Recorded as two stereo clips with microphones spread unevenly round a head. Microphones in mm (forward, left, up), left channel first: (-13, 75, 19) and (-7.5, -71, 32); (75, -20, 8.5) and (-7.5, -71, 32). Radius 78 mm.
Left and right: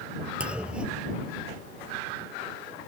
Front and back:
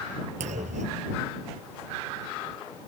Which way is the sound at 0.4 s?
170° right.